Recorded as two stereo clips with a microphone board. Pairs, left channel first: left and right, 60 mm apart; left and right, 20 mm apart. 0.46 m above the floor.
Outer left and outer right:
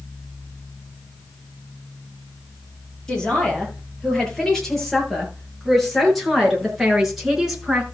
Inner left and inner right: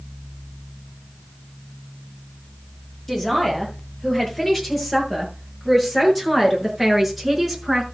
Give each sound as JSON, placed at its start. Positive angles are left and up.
{"t": 3.1, "sound": "a man speaking", "side_deg": 10, "distance_m": 8.5}